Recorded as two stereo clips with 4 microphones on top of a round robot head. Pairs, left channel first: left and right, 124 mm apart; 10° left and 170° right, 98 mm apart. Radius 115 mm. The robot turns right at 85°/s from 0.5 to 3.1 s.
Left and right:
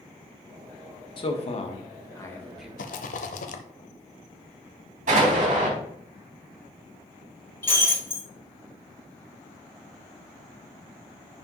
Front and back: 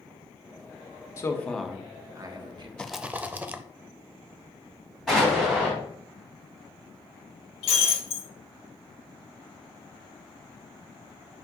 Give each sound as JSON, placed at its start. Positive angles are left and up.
{"t": 1.2, "sound": "a man speaking", "azimuth_deg": 60, "distance_m": 1.5}
{"t": 2.8, "sound": "a rattle", "azimuth_deg": 90, "distance_m": 0.7}
{"t": 5.1, "sound": "an explosion", "azimuth_deg": -85, "distance_m": 3.0}
{"t": 7.6, "sound": "breaking glass", "azimuth_deg": 20, "distance_m": 2.5}